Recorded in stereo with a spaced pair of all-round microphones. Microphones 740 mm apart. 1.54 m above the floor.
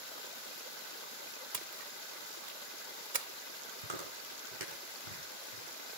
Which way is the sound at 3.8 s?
80° right.